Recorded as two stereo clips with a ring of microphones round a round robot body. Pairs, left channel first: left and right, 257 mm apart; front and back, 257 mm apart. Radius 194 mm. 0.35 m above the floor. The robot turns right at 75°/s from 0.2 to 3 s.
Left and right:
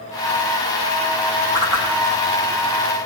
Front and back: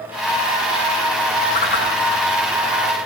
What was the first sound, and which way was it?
A whoosh, 80° right.